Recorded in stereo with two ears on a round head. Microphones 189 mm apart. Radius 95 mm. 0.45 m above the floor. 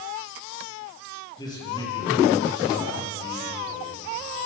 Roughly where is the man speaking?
Centre.